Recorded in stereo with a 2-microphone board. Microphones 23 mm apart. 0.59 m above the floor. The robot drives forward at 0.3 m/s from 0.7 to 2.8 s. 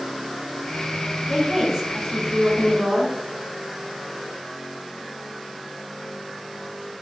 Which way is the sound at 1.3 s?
10° right (ahead or behind).